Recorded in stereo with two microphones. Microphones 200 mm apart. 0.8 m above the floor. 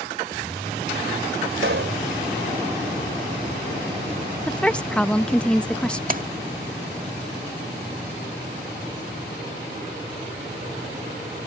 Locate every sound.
1.6 s a pop: 85° right
4.5 s a woman speaking: 5° left (ahead or behind)
6.1 s a splash: 45° right (ahead or behind)